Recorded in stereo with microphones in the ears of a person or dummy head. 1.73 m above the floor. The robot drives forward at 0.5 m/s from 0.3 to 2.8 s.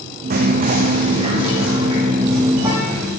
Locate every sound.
0.3 s whispering: 55° right (ahead or behind), 0.9 m; by 3.1 s 20° right (ahead or behind), 1.9 m